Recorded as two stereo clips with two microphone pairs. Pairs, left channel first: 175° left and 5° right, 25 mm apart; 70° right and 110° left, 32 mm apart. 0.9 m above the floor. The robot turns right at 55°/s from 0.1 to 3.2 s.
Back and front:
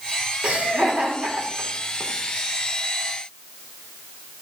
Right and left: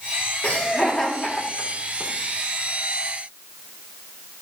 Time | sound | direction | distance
0.4 | laughter | 35° right | 3 m